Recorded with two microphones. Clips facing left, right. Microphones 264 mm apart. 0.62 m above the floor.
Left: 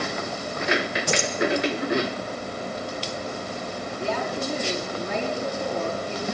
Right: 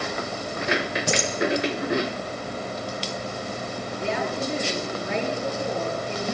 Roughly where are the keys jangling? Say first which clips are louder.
Right 1 dB; right.